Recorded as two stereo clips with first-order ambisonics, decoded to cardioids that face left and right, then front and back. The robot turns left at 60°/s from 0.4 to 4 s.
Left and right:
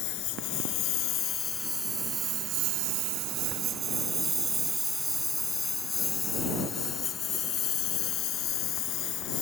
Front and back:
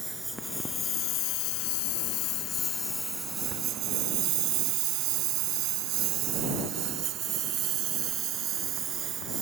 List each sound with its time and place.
0.0 s a lawn mower: 95° left; by 9.4 s 125° left